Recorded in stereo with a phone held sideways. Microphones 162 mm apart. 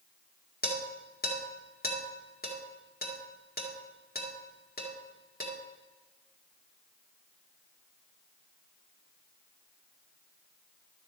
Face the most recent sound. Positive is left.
turn(degrees=70)  # may be behind; listen again after turning